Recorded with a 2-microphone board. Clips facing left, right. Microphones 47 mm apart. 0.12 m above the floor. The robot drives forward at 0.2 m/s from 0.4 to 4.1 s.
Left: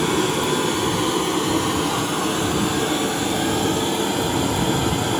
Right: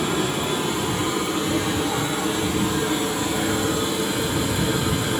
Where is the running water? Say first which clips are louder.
Left 3 dB; 70° left (ahead or behind), 1.3 m; by 5.2 s 55° left (ahead or behind), 1.5 m.